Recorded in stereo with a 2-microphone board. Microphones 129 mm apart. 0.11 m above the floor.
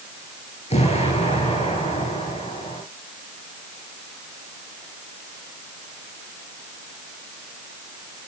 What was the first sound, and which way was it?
An explosion, 55° left (ahead or behind).